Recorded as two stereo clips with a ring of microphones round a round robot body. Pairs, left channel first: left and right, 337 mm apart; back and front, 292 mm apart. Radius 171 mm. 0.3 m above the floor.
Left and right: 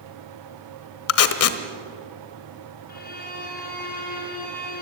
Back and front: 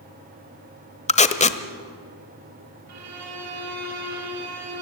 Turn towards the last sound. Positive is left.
turn(degrees=25)